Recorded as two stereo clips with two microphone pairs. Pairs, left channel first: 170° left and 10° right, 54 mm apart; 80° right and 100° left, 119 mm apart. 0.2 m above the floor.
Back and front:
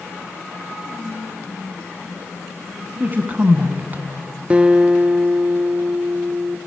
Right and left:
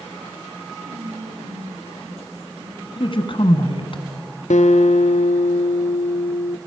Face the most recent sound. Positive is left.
turn(degrees=-80)